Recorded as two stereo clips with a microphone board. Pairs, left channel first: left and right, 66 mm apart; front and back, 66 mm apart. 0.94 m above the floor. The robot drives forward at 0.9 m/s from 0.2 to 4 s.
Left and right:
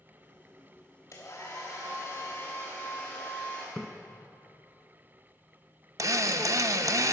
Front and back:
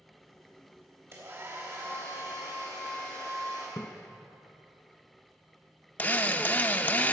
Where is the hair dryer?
135° left, 3.5 m; by 3.7 s 150° left, 5.5 m.